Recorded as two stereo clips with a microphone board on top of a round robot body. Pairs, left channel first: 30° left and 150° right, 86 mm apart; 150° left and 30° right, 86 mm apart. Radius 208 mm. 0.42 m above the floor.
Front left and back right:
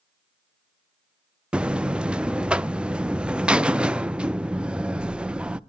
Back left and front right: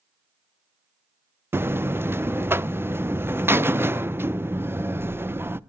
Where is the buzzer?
75° right, 0.7 m.